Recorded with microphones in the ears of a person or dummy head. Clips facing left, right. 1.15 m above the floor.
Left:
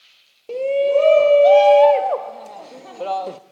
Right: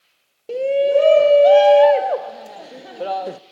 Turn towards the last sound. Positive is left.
turn(degrees=-15)  # may be behind; listen again after turning